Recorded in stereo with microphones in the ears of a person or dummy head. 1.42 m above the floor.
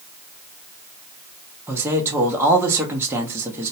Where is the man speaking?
10° right (ahead or behind), 0.6 m.